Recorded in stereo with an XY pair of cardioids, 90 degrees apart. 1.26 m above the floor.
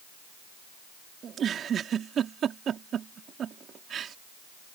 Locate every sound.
1.2 s a giggle: 65° right